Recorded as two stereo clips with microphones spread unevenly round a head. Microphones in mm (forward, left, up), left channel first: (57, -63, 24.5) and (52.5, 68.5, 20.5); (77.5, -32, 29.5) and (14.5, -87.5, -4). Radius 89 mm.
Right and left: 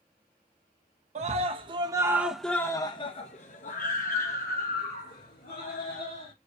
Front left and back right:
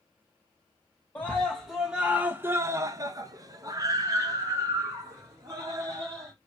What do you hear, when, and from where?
1.1 s a scream: 130° left, 0.9 m; by 6.3 s 95° right, 2 m